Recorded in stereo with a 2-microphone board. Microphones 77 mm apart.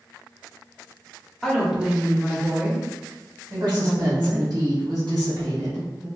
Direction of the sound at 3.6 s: 65° right (ahead or behind).